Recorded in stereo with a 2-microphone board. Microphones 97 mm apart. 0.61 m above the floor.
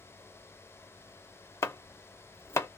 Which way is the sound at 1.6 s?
30° left (ahead or behind).